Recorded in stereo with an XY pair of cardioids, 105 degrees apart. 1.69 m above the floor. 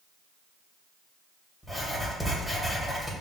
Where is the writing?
Straight ahead, 1.8 m.